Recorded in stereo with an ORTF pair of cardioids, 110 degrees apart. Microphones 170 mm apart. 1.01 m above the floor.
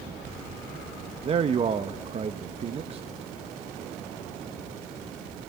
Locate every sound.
1.2 s a man speaking: 35° right, 0.9 m